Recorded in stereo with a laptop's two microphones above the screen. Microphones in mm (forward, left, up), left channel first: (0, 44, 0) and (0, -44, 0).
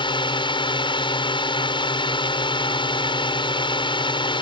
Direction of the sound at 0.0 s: 70° left (ahead or behind).